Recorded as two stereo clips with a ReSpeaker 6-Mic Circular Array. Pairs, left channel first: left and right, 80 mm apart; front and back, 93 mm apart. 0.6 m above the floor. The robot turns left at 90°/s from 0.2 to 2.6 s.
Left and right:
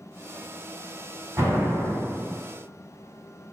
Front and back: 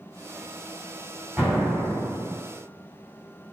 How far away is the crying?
No crying in this recording.